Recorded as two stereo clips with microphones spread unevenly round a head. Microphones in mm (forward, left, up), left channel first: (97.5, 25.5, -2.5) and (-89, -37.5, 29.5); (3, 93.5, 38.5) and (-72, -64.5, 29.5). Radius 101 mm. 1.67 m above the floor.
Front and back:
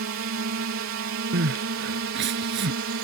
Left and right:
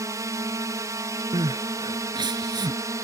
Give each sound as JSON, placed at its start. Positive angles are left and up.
{"t": 0.0, "sound": "a drone", "azimuth_deg": 175}
{"t": 1.3, "sound": "crying", "azimuth_deg": 180}